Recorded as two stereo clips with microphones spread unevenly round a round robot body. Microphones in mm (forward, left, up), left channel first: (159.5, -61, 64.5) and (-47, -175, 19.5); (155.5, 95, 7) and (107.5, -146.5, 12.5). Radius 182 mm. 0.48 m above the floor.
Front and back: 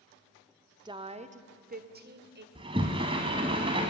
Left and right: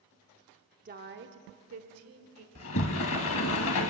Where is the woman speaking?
120° right, 1.0 m.